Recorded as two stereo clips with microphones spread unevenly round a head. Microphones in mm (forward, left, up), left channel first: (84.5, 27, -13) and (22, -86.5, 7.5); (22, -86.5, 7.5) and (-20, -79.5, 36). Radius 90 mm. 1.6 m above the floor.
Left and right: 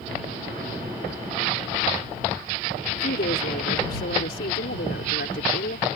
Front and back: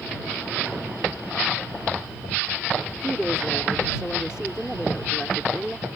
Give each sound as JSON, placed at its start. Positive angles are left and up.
{"t": 2.9, "sound": "a woman speaking", "azimuth_deg": 85}